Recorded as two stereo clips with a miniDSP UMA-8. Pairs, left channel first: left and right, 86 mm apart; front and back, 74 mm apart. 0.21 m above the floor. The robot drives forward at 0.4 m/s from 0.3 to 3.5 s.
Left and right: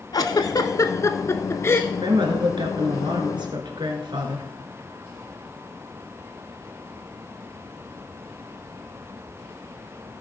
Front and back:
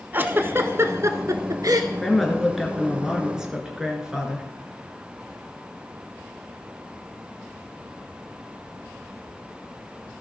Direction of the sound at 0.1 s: 125° left.